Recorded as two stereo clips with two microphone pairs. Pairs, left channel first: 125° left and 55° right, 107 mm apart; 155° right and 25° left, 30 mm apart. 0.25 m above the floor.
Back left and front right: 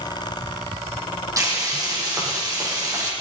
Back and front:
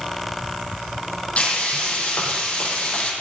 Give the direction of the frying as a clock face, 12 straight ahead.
4 o'clock.